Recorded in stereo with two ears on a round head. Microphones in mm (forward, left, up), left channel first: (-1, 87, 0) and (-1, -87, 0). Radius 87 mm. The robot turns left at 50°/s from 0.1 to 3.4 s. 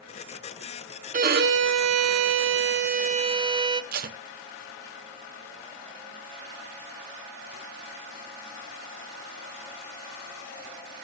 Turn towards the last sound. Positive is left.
turn(degrees=-50)  # may be behind; listen again after turning